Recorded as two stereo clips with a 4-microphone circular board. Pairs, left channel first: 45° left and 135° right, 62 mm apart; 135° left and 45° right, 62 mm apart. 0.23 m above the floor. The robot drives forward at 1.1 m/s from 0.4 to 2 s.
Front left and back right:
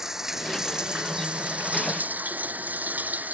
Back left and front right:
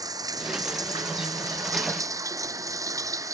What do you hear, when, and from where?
0.0 s running water: 50° right; by 3.4 s 70° right